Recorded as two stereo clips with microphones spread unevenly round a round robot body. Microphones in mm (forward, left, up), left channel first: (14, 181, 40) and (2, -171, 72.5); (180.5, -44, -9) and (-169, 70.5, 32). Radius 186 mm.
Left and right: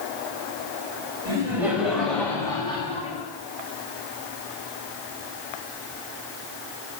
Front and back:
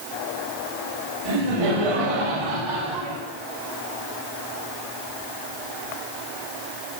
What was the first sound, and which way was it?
Laughter, 175° right.